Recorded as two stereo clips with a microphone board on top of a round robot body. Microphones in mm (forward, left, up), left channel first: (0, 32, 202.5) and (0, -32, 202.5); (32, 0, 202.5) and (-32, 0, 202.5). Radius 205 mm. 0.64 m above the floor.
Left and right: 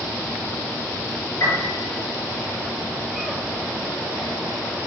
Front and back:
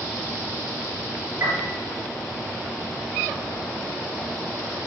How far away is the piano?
About 3 m.